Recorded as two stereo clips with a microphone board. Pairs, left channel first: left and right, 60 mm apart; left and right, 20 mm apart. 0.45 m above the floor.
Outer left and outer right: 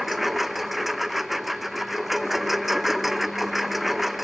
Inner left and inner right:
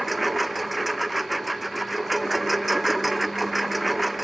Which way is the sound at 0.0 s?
5° right (ahead or behind).